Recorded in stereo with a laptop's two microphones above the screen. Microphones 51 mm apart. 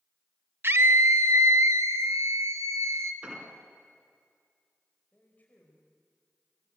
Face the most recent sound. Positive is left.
turn(degrees=35)  # may be behind; listen again after turning